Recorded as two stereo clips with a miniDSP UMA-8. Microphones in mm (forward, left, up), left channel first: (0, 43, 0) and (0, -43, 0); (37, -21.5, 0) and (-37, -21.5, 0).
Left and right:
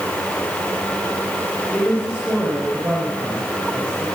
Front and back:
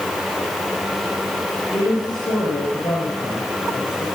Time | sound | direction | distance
1.7 | a woman speaking | 10° right | 8 m